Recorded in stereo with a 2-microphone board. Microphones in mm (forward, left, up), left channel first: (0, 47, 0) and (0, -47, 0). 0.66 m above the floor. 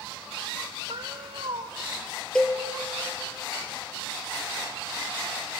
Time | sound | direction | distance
0.9 | a cat meowing | 70° right (ahead or behind) | 1.8 m
2.4 | a cowbell | 10° left (ahead or behind) | 2 m